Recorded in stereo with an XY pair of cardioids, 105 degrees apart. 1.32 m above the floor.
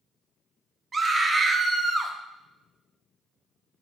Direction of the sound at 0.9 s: 35° right.